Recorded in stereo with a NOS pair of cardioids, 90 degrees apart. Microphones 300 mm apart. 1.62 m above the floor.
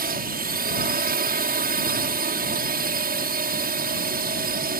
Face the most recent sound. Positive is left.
turn(degrees=-30)